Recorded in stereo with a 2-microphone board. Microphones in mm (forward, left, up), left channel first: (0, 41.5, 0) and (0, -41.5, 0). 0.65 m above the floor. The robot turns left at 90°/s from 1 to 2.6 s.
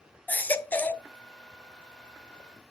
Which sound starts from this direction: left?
A baby crying, at 0.3 s.